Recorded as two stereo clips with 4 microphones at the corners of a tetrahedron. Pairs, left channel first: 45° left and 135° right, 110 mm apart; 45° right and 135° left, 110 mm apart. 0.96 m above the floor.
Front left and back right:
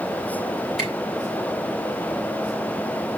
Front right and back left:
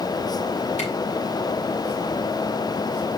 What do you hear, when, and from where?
0.8 s a camera shutter: 45° right, 5 m